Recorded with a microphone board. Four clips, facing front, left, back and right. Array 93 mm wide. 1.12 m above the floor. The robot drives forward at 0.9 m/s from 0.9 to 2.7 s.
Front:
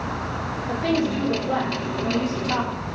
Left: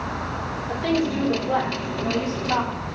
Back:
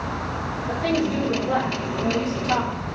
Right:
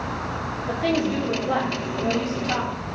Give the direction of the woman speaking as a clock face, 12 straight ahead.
3 o'clock.